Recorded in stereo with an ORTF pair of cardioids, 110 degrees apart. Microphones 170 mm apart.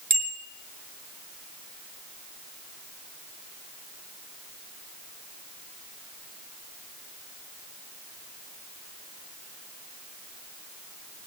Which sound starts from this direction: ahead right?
A bicycle bell, at 0.1 s.